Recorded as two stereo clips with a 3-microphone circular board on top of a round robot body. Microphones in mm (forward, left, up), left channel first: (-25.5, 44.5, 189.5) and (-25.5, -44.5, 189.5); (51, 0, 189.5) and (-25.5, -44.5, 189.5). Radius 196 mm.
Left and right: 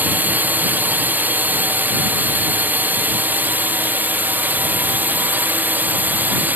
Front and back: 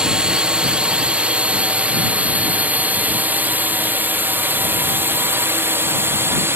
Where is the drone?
90° right; by 6.6 s 135° right.